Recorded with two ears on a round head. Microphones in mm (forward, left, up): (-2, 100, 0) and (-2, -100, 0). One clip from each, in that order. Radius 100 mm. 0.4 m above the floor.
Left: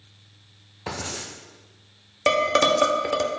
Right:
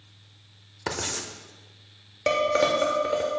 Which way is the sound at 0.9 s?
40° right (ahead or behind).